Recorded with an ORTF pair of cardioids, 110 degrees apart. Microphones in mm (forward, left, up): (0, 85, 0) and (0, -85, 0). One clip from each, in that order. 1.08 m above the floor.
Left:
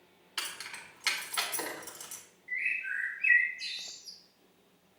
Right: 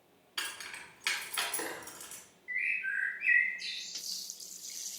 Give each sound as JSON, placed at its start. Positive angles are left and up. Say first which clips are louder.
{"t": 0.4, "sound": "keys jangling", "louder": "left 1 dB", "azimuth_deg": 15, "distance_m": 1.5}
{"t": 2.5, "sound": "a bird", "louder": "even", "azimuth_deg": 0, "distance_m": 0.9}